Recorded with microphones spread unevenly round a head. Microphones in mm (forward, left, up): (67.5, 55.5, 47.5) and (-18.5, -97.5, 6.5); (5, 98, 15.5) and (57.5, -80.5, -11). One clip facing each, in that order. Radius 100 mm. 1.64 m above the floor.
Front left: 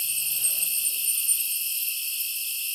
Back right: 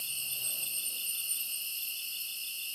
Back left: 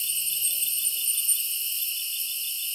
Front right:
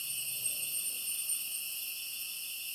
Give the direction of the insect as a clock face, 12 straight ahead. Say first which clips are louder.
Front left 4 dB, back left 3 dB; 9 o'clock.